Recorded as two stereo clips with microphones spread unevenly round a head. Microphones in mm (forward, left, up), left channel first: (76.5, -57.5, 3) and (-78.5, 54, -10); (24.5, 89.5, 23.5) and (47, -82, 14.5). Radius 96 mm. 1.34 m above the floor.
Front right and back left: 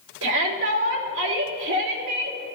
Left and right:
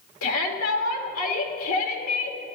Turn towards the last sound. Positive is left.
turn(degrees=110)